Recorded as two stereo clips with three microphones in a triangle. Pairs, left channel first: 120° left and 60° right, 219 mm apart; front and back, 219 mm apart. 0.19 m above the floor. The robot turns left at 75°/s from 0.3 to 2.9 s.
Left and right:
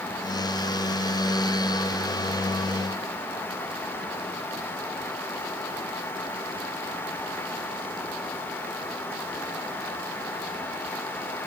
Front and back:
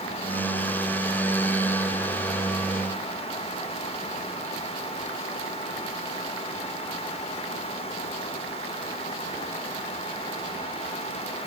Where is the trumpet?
I don't hear a trumpet.